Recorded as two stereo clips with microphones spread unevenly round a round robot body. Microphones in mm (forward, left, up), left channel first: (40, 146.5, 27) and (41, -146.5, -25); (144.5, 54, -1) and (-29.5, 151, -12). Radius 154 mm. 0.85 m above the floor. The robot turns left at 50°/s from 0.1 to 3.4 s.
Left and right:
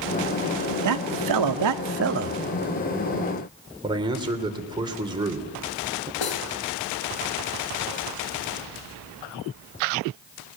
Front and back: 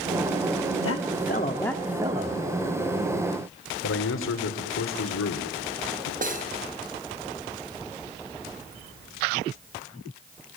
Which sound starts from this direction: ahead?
A man speaking, at 3.8 s.